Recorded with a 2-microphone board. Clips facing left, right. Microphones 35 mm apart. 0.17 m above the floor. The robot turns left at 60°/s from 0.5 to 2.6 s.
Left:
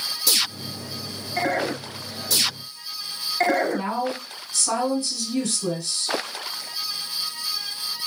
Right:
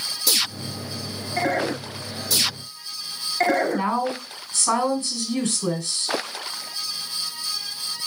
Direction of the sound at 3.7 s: 40° right (ahead or behind).